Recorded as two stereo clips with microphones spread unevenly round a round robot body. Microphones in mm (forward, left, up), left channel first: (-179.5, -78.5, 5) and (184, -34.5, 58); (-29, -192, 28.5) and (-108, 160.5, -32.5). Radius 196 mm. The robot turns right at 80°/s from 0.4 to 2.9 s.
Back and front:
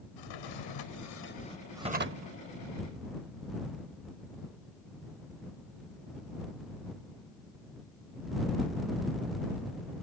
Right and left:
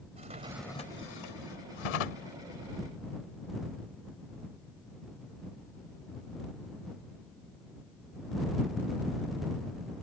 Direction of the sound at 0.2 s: 175° left.